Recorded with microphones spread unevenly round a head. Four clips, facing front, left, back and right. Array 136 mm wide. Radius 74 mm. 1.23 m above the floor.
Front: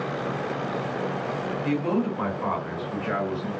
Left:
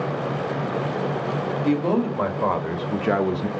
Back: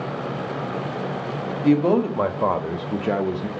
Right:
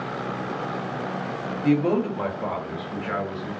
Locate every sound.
1.6 s a man speaking: 175° right, 2.5 m; by 3.5 s 105° left, 1.2 m